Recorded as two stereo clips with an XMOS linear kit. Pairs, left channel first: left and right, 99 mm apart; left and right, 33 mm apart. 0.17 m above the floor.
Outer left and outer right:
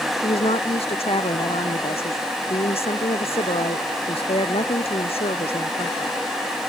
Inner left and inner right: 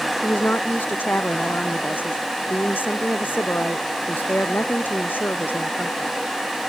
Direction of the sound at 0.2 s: 80° left.